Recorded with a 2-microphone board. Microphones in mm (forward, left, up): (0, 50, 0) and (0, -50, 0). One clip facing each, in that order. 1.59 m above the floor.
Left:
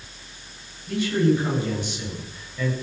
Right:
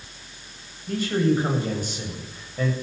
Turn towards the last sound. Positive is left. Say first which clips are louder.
# left 1 dB
turn(degrees=-45)  # may be behind; listen again after turning